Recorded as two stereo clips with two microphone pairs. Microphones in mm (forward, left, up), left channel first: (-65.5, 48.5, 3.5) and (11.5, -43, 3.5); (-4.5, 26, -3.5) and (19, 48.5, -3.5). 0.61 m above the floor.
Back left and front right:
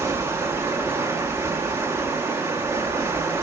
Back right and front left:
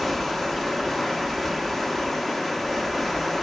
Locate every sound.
0.0 s running water: 55° right, 0.8 m